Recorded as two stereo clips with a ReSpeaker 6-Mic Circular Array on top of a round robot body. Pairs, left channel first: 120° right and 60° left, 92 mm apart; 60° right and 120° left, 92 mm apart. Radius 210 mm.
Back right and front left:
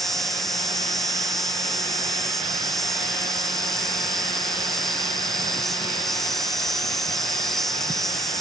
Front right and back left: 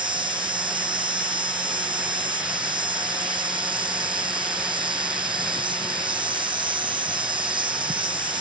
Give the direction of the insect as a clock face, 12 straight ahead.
7 o'clock.